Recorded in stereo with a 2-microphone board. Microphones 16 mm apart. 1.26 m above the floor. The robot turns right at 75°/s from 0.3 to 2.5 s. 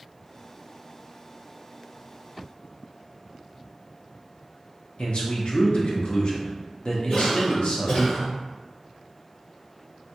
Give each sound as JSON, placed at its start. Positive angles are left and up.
{"t": 5.0, "sound": "a man speaking", "side_deg": 55, "distance_m": 0.7}
{"t": 7.1, "sound": "a cough", "side_deg": 80, "distance_m": 1.9}